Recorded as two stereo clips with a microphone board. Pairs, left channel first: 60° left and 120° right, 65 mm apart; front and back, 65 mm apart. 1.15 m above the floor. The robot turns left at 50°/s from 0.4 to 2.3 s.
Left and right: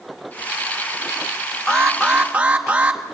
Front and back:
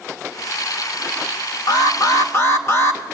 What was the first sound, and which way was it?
An alarm, 20° right.